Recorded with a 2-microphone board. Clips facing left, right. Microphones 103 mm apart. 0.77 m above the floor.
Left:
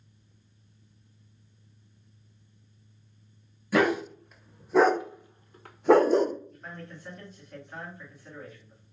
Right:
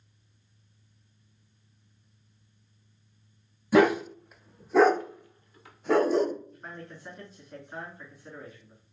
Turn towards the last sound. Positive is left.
turn(degrees=-15)  # may be behind; listen again after turning